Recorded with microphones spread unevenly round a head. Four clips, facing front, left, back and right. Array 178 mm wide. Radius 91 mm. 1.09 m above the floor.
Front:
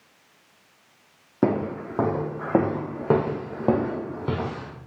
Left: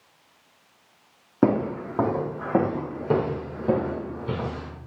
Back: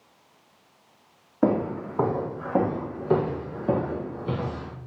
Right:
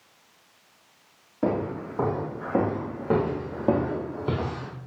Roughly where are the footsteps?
Ahead left.